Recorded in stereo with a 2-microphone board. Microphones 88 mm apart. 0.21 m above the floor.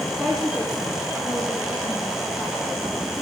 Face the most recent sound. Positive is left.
turn(degrees=5)  # may be behind; listen again after turning